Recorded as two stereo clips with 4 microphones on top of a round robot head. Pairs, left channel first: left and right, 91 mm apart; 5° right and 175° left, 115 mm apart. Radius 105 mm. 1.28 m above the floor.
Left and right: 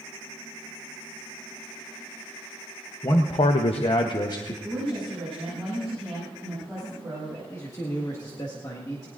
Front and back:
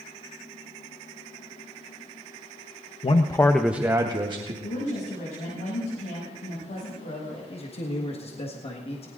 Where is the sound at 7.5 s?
30° left, 1.7 m.